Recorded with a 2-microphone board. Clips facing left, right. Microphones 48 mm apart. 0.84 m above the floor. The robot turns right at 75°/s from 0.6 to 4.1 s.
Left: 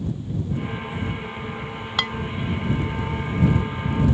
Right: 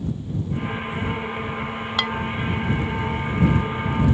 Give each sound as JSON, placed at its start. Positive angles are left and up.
{"t": 2.0, "sound": "dishes clattering", "side_deg": 0}